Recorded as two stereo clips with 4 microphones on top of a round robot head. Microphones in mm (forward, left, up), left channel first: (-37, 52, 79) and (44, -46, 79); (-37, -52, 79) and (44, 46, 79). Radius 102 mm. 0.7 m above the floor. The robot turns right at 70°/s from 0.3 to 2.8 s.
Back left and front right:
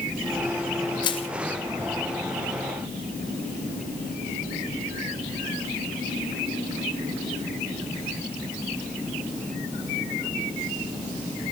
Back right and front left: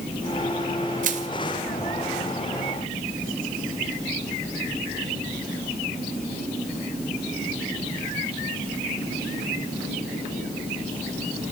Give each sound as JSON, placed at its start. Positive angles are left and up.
{"t": 1.0, "sound": "crushing", "azimuth_deg": 70, "distance_m": 1.4}